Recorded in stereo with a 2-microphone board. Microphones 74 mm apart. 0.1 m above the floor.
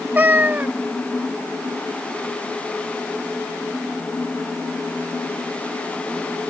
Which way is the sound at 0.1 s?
25° right (ahead or behind).